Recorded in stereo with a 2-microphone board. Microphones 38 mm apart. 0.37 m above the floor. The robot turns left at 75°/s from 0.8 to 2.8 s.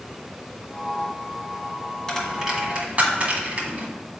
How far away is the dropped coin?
About 1.5 m.